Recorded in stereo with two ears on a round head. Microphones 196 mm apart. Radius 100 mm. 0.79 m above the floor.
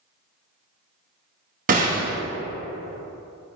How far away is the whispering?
I don't hear whispering.